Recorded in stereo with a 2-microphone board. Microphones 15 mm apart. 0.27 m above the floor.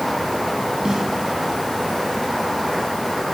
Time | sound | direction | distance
0.8 | a snare drum | 35° right (ahead or behind) | 3 m